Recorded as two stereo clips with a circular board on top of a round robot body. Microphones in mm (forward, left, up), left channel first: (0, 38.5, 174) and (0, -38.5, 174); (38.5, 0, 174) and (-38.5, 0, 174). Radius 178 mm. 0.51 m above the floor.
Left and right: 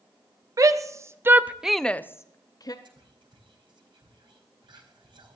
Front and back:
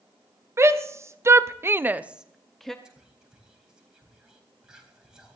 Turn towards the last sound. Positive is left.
turn(degrees=-100)